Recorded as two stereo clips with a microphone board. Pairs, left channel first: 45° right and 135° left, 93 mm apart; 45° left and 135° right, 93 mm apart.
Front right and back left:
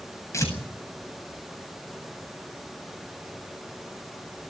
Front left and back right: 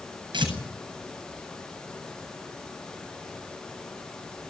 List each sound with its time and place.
0.3 s tearing paper: 105° right, 8.5 m